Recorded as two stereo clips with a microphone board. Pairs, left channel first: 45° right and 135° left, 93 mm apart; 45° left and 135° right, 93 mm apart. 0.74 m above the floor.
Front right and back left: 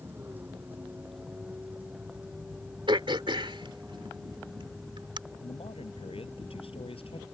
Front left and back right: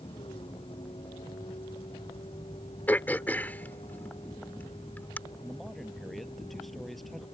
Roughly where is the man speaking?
Ahead right.